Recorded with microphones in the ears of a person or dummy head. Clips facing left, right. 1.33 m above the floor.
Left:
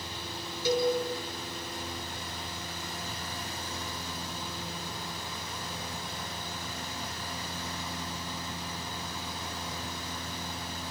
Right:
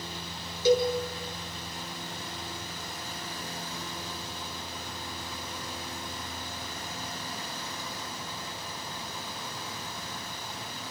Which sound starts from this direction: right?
A cowbell, at 0.7 s.